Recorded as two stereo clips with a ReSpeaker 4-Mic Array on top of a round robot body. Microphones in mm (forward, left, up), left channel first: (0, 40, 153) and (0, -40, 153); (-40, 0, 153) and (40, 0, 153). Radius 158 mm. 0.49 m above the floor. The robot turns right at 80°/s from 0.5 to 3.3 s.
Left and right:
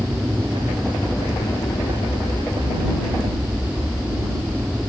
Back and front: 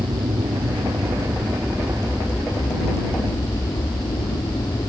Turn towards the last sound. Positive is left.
turn(degrees=-165)